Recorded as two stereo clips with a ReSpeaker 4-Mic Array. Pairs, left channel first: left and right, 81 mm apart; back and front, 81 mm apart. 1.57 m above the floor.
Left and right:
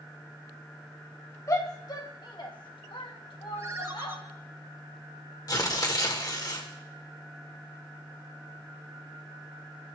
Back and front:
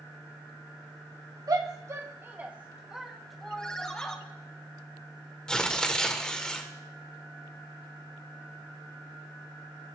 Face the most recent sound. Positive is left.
turn(degrees=105)